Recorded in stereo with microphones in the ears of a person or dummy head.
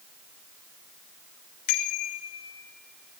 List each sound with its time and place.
1.7 s a bicycle bell: 55° left (ahead or behind), 2 m; by 3.2 s 10° right (ahead or behind), 2 m